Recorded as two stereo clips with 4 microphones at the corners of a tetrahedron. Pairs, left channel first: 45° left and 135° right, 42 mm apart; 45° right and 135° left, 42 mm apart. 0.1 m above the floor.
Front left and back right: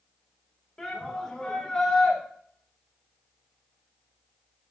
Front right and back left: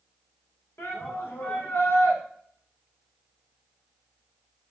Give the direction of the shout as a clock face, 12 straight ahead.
1 o'clock.